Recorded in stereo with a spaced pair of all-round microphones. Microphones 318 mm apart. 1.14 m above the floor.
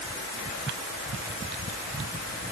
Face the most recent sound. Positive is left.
No sound to turn to.